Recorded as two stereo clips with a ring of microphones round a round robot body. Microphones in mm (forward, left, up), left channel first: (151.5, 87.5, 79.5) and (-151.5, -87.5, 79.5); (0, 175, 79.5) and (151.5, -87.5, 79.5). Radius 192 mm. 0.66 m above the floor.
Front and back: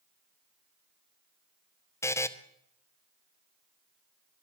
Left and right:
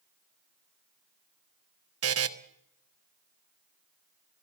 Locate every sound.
2.0 s a buzzer: 50° right, 1.2 m